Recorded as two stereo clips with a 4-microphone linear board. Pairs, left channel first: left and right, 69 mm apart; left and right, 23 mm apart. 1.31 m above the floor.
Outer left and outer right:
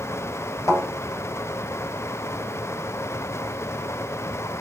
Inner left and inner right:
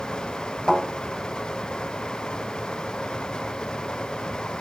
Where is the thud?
50° left (ahead or behind), 3 m.